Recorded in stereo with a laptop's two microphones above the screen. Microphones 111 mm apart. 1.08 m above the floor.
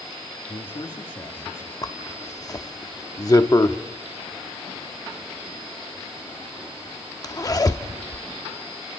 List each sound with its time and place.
0.5 s a man speaking: 50° left (ahead or behind), 1.7 m; by 1.7 s 30° left (ahead or behind), 2.5 m
1.8 s a zipper: 35° left (ahead or behind), 0.7 m